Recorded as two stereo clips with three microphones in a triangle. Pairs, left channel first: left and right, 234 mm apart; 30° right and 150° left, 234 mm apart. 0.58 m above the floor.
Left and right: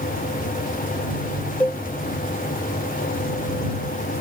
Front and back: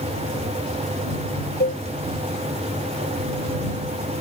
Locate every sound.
1.6 s a cowbell: 10° left